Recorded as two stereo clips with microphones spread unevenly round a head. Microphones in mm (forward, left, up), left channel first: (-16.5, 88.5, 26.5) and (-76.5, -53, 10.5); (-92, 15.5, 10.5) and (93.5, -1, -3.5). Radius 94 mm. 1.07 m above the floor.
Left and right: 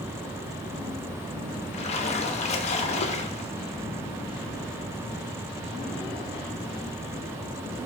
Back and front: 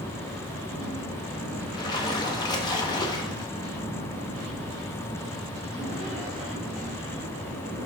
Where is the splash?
110° left, 0.6 m.